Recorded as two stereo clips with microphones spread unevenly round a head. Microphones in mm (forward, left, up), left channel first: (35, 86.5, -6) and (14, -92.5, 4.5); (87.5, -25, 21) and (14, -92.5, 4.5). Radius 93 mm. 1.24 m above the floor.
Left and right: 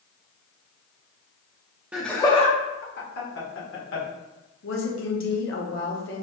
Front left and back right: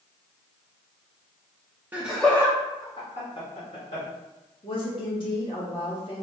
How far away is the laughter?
About 0.6 m.